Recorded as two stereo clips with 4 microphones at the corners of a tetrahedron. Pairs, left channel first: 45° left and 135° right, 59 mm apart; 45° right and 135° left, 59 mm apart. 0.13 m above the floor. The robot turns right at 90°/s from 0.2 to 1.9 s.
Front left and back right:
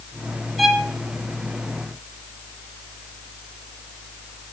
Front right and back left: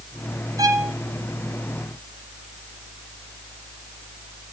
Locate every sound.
0.6 s a violin: 135° left, 1.2 m; by 0.9 s 165° left, 1.2 m